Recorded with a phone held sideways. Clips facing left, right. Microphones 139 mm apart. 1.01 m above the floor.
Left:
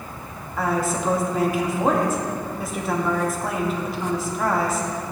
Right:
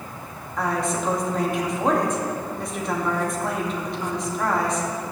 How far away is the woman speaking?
About 2 m.